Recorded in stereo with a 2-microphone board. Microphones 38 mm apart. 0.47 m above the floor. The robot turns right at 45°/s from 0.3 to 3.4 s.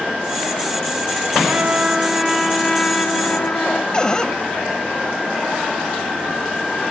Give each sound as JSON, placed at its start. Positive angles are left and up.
{"t": 1.5, "sound": "a trumpet", "azimuth_deg": -40}
{"t": 3.9, "sound": "a cupboard door", "side_deg": 20}